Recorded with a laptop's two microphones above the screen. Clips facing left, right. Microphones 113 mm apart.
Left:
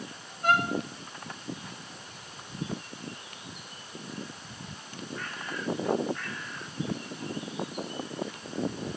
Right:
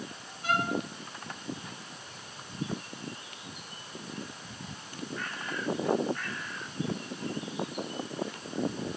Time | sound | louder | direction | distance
0.4 | a violin | left 4 dB | 60° left (ahead or behind) | 3.5 m